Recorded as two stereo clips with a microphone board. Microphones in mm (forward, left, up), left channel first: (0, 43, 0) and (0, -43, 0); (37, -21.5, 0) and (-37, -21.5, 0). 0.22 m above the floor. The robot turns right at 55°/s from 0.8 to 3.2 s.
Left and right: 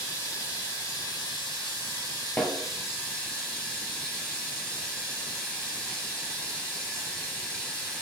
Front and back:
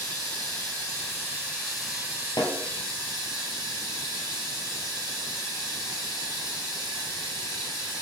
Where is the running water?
35° left, 2 m; by 8.0 s 170° left, 2 m.